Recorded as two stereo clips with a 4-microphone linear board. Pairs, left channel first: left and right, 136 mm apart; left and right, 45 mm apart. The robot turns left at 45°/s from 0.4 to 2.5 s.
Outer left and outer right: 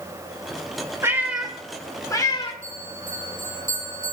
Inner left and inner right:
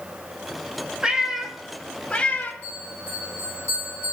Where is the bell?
75° right (ahead or behind), 3.5 m.